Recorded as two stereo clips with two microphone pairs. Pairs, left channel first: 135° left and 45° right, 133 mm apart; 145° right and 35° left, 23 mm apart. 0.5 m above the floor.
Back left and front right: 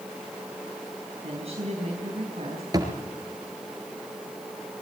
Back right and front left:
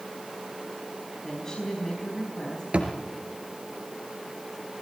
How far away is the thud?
About 3 m.